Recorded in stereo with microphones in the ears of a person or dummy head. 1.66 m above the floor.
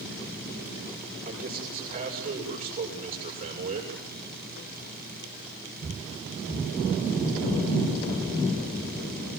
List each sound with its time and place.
1.2 s a man speaking: 45° right (ahead or behind), 7.5 m